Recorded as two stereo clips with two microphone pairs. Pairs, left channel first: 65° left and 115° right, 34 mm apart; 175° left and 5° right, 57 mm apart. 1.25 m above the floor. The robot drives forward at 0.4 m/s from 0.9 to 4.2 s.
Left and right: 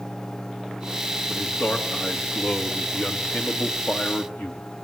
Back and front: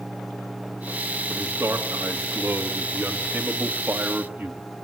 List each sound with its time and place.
1.3 s a man speaking: 40° left, 2.5 m; by 4.6 s 65° left, 1.8 m